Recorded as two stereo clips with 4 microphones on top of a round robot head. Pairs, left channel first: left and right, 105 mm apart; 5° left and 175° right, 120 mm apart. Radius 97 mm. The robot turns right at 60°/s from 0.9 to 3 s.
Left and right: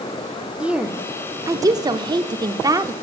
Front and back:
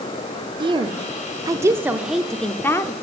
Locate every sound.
0.6 s a woman speaking: 165° right, 0.9 m; by 2.9 s 45° right, 0.9 m